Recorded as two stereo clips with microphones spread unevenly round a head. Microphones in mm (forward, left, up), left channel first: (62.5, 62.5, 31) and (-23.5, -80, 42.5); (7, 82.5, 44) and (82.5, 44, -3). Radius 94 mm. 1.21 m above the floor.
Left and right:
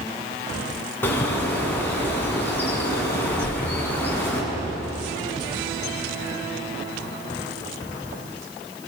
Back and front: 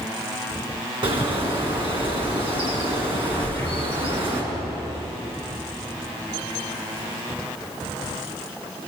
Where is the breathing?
110° left, 2.5 m.